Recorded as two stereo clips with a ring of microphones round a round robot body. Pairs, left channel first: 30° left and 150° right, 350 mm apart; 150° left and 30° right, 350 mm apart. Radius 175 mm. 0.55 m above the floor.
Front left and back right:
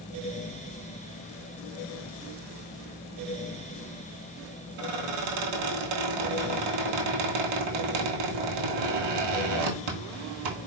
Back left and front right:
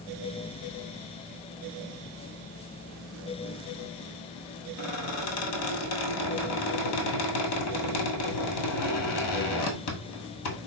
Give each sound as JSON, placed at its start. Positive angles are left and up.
{"t": 4.8, "sound": "a squeak", "azimuth_deg": -165, "distance_m": 1.5}